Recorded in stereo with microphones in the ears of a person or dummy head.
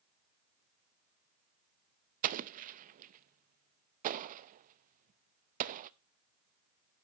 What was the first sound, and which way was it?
An explosion, 45° right (ahead or behind).